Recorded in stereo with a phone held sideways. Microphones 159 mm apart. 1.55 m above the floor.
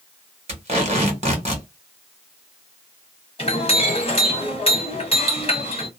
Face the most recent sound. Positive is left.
turn(degrees=35)  # may be behind; listen again after turning